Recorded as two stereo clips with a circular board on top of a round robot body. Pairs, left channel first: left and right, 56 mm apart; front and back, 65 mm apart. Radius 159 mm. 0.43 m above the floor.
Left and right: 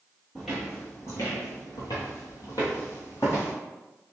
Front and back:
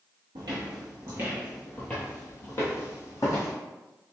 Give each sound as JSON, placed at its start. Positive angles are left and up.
{"t": 0.3, "sound": "footsteps", "azimuth_deg": 175, "distance_m": 0.7}